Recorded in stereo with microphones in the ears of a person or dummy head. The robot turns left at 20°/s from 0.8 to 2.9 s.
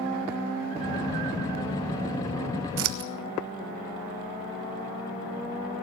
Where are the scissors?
70° right (ahead or behind), 1.2 m; by 3.1 s 65° right (ahead or behind), 1.2 m.